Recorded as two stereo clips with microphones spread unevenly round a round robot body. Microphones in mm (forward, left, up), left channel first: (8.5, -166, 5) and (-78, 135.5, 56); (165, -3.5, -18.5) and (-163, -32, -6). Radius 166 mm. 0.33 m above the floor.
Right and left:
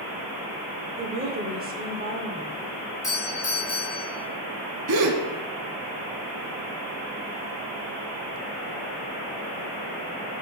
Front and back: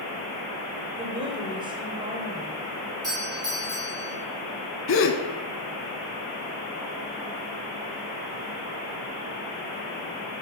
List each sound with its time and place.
1.0 s a woman speaking: 130° left, 0.9 m
3.0 s a doorbell: 110° right, 1.9 m
4.9 s a gasp: 60° left, 0.6 m